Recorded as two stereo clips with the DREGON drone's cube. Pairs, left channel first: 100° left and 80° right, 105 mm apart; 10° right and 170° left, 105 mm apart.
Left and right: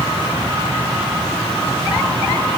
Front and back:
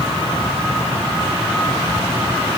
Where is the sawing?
No sawing in this recording.